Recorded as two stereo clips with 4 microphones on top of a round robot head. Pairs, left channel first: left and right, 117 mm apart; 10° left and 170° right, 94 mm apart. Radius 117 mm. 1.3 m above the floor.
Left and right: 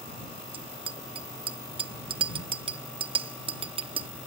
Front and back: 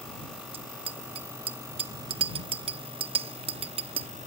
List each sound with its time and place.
0.5 s a bicycle bell: 140° right